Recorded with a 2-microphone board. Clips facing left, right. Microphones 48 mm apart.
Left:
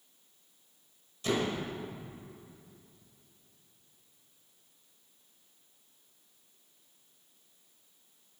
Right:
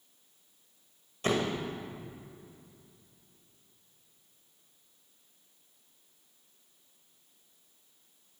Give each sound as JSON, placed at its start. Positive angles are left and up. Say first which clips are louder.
{"t": 1.2, "sound": "a door slam", "louder": "right 1 dB", "side_deg": -45, "distance_m": 1.9}